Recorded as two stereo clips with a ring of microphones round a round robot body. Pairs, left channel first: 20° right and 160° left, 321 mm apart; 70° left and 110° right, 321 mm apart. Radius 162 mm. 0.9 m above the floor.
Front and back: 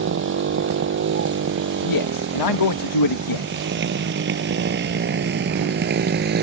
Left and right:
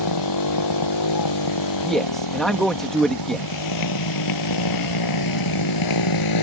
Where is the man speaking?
20° right.